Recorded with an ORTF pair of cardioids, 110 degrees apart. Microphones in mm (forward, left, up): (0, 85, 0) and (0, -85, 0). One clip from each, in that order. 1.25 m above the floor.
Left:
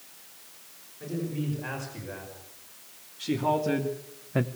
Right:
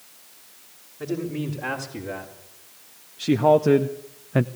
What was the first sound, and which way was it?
A man speaking, 65° right.